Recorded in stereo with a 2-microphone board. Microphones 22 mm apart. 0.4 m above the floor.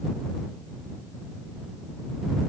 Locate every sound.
Only background noise.